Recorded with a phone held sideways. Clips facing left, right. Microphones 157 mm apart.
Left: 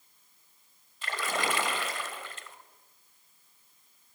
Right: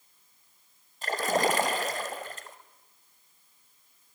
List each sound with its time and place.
1.0 s a splash: 40° right (ahead or behind), 1.4 m